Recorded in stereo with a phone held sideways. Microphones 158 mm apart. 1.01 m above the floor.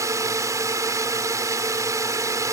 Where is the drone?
20° right (ahead or behind).